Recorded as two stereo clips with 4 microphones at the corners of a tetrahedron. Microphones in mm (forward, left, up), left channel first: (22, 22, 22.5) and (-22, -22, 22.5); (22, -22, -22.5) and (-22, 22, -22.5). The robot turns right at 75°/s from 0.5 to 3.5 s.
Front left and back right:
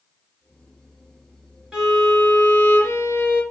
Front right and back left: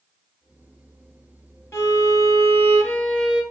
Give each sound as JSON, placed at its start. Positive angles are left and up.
{"t": 1.7, "sound": "a violin", "azimuth_deg": -70, "distance_m": 2.5}